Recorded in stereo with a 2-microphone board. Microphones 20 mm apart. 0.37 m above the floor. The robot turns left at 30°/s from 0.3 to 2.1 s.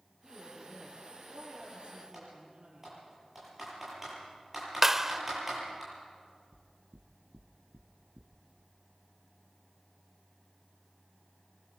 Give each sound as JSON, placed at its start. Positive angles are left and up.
{"t": 0.2, "sound": "a woman speaking", "azimuth_deg": 0, "distance_m": 9.0}
{"t": 2.1, "sound": "typing on a keyboard", "side_deg": -10, "distance_m": 10.0}
{"t": 4.8, "sound": "a clap", "side_deg": -15, "distance_m": 0.8}
{"t": 6.5, "sound": "knocking", "side_deg": -55, "distance_m": 2.0}